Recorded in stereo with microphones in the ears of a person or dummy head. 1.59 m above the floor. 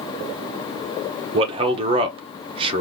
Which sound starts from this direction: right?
A man speaking, at 1.3 s.